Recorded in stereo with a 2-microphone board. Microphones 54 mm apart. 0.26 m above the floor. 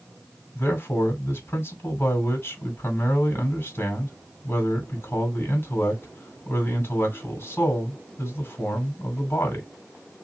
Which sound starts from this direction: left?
A man speaking, at 0.6 s.